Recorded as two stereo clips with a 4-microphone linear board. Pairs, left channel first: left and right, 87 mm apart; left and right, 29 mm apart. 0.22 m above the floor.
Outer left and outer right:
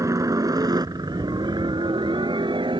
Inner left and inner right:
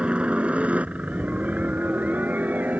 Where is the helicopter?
40° right (ahead or behind); by 2.8 s 70° right (ahead or behind).